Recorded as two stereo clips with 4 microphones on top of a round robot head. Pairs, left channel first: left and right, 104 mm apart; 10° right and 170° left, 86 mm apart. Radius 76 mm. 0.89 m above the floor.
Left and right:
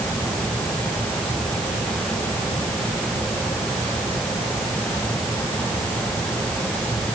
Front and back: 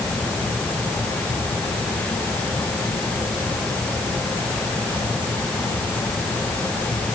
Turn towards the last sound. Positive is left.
No sound to turn to.